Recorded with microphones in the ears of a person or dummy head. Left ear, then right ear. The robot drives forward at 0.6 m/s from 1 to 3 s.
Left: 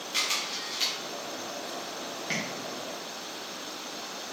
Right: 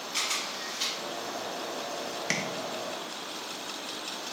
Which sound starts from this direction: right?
Tapping, at 2.3 s.